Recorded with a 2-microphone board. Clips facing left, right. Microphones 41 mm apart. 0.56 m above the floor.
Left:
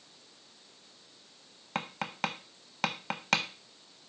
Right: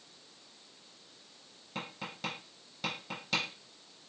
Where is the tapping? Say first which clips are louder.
Left 7 dB; 75° left (ahead or behind), 0.7 m.